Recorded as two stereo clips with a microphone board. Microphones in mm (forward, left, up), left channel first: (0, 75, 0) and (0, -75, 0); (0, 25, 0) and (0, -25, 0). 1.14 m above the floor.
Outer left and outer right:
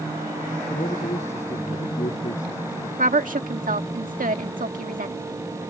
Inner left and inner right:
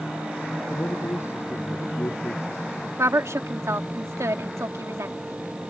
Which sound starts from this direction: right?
A woman speaking, at 3.0 s.